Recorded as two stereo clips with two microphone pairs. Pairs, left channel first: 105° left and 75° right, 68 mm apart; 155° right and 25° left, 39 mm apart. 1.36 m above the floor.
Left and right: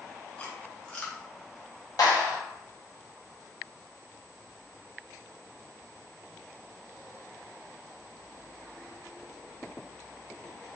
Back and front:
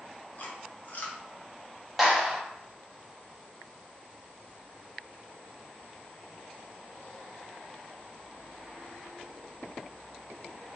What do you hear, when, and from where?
0.4 s chewing: 175° left, 0.6 m
2.0 s a clap: 115° left, 0.9 m